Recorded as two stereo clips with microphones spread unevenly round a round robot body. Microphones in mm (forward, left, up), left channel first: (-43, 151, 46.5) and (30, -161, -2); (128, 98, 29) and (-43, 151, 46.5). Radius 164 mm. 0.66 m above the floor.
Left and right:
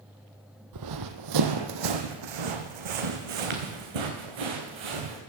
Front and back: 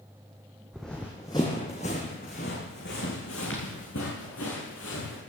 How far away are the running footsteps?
About 1.1 m.